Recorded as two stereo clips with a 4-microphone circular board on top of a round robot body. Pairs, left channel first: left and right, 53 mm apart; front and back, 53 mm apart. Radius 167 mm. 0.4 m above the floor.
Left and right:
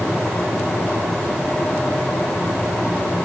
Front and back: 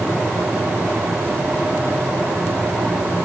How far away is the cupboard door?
No cupboard door in this recording.